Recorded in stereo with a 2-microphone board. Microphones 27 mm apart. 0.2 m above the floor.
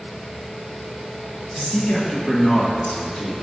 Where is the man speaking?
25° left (ahead or behind), 1.5 m; by 3.3 s 30° left (ahead or behind), 2.5 m.